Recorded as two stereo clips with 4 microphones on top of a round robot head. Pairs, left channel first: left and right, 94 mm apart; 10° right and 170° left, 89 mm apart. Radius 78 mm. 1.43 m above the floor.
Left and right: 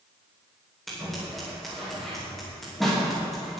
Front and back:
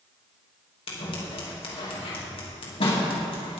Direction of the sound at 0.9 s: Straight ahead.